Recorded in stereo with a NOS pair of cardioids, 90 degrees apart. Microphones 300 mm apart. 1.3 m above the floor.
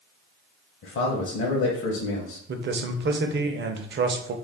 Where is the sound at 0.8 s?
45° left, 0.7 m.